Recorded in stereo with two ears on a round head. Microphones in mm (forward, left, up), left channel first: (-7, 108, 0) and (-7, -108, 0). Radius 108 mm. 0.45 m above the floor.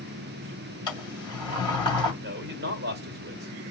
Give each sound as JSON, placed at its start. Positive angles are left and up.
{"t": 0.9, "sound": "a sliding door", "side_deg": 20, "distance_m": 2.0}
{"t": 2.2, "sound": "a man speaking", "side_deg": -45, "distance_m": 1.5}